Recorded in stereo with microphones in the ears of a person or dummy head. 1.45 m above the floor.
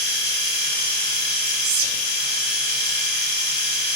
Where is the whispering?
75° right (ahead or behind), 0.6 m.